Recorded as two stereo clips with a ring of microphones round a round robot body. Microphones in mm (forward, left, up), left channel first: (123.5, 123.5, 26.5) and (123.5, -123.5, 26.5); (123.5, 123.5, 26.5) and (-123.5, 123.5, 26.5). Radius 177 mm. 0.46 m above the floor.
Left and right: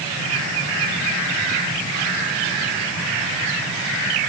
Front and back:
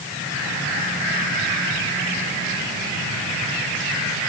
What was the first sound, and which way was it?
Only background noise.